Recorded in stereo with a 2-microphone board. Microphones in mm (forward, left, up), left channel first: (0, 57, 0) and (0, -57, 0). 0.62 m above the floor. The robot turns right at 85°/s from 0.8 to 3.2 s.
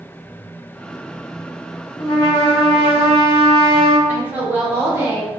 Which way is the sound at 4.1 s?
20° right (ahead or behind).